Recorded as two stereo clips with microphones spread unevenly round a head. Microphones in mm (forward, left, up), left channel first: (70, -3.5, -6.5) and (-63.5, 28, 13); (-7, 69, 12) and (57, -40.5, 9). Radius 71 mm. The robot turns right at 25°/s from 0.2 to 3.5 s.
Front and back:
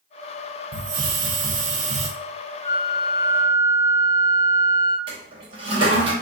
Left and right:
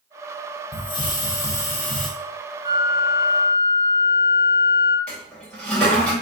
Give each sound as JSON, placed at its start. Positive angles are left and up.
{"t": 0.7, "sound": "a hiss", "azimuth_deg": 170, "distance_m": 0.7}
{"t": 2.6, "sound": "a flute", "azimuth_deg": -80, "distance_m": 1.0}
{"t": 5.1, "sound": "a toilet flushing", "azimuth_deg": -160, "distance_m": 0.9}